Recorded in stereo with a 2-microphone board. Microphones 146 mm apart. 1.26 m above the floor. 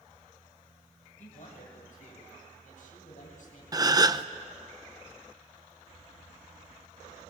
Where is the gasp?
25° right (ahead or behind), 0.7 m.